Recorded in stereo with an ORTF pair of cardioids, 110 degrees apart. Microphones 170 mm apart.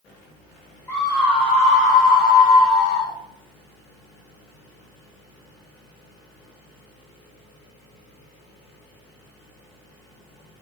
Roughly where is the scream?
Ahead.